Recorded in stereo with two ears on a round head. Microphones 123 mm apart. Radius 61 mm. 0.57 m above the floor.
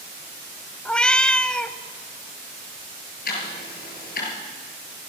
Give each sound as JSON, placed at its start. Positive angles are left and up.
{"t": 0.8, "sound": "a cat meowing", "side_deg": 5, "distance_m": 1.0}
{"t": 3.2, "sound": "ticking", "side_deg": 70, "distance_m": 7.5}